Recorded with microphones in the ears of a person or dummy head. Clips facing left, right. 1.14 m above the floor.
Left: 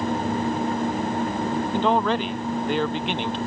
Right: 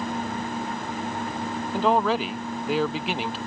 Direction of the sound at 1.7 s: 10° right (ahead or behind).